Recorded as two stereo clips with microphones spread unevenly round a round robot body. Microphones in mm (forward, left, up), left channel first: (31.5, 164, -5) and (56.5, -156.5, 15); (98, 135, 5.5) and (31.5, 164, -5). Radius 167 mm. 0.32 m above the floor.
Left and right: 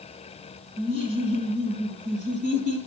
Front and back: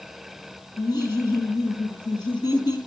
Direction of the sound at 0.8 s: 30° right.